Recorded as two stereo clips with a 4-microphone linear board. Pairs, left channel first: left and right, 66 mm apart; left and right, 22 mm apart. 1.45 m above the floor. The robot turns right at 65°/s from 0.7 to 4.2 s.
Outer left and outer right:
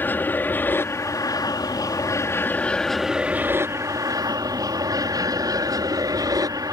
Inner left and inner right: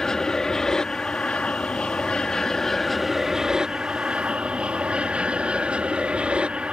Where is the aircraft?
30° left; by 6.7 s 100° right.